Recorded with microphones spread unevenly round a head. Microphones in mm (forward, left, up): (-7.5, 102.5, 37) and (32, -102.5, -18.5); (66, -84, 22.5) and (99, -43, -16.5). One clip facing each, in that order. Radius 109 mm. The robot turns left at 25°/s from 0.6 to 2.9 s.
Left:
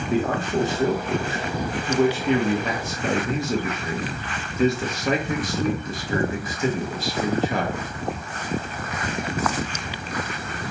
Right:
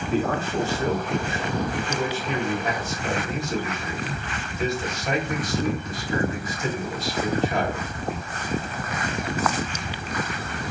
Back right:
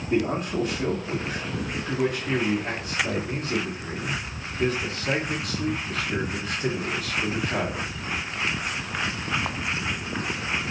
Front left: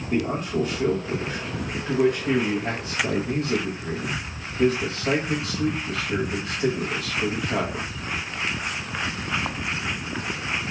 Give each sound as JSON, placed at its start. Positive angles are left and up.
{"t": 0.1, "sound": "a man speaking", "azimuth_deg": 170, "distance_m": 0.9}